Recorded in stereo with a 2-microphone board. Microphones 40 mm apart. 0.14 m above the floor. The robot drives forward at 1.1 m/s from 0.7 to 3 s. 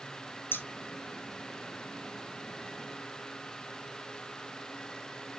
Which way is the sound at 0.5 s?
70° left (ahead or behind).